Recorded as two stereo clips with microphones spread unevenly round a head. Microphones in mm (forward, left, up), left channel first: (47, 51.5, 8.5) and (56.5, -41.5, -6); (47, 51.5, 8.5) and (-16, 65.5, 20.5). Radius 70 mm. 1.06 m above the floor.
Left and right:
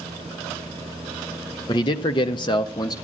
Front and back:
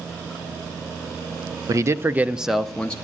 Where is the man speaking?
140° left, 0.5 m; by 3.0 s 50° left, 0.6 m.